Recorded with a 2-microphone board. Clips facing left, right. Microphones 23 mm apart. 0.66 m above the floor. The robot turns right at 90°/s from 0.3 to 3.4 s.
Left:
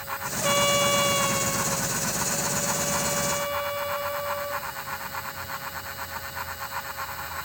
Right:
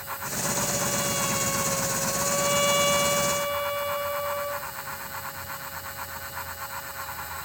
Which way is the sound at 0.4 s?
80° left.